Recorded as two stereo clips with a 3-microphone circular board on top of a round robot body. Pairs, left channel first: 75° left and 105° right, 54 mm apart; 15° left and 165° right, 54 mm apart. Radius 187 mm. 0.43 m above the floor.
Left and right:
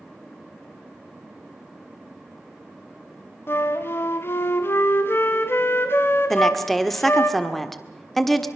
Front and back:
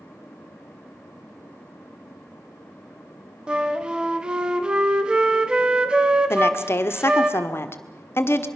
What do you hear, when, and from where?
3.5 s a flute: 125° left, 0.9 m
6.3 s a woman speaking: 10° right, 1.9 m